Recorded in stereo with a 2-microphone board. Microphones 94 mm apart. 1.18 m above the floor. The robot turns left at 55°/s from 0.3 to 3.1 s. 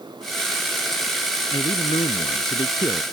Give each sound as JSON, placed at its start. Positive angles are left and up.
{"t": 1.5, "sound": "a man speaking", "azimuth_deg": 120}